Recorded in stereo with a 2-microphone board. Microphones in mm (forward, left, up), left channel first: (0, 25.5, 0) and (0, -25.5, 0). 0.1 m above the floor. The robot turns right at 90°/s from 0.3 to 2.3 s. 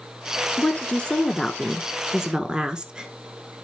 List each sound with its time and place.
0.6 s a woman speaking: 20° left (ahead or behind), 1.1 m; by 3.1 s 20° right (ahead or behind), 1.1 m